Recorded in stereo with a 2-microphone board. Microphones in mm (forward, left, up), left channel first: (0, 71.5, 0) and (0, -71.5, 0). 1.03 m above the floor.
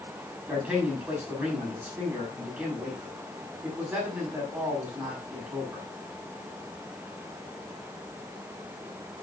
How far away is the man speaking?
About 6 m.